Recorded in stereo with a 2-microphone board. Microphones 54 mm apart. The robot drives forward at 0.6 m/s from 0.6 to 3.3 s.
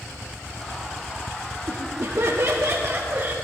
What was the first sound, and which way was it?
Laughter, 45° right (ahead or behind).